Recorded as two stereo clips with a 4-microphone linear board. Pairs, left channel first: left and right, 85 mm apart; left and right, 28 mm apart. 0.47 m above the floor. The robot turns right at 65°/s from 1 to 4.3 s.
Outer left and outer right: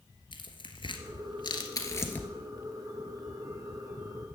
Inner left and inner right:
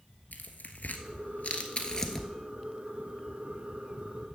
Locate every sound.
0.3 s tearing paper: 75° left (ahead or behind), 1.2 m; by 2.3 s 10° left (ahead or behind), 1.2 m